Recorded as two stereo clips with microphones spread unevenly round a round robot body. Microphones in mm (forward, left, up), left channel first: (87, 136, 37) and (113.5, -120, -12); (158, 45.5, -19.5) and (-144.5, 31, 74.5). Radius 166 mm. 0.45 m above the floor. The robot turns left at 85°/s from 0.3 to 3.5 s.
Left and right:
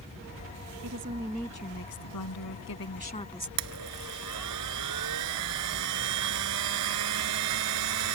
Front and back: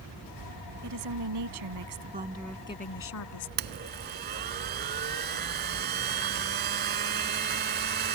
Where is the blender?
115° right.